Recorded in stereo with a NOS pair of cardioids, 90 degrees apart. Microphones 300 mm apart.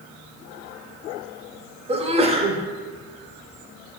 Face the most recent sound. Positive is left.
turn(degrees=-20)